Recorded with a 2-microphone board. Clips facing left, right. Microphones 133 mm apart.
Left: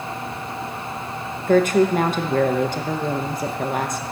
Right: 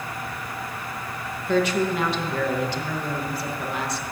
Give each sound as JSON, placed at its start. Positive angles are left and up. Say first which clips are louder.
{"t": 1.5, "sound": "a woman speaking", "louder": "left 6 dB", "side_deg": 50, "distance_m": 0.6}